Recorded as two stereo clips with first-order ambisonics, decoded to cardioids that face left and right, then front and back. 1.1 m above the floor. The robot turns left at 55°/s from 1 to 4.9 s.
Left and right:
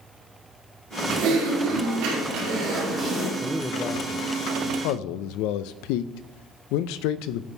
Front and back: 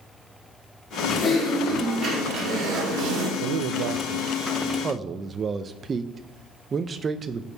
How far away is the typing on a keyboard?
About 2.5 m.